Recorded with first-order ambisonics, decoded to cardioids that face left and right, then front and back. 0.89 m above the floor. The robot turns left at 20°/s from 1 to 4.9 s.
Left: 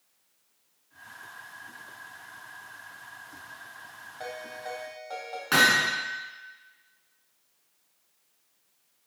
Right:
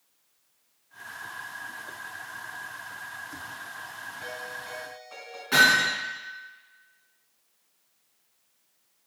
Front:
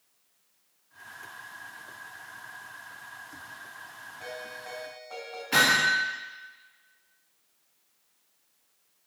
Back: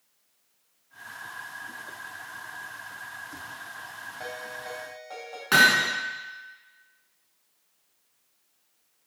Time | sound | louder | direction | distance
4.2 | a ringtone | left 2 dB, back 2 dB | 135° left | 3.5 m
5.5 | hammering | right 2 dB, back 3 dB | 155° left | 3.5 m